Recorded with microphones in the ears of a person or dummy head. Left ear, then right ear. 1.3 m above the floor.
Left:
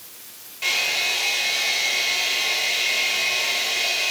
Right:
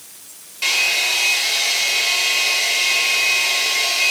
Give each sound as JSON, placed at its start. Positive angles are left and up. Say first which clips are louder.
{"t": 0.6, "sound": "a hair dryer", "louder": "right 4 dB", "side_deg": -20, "distance_m": 2.5}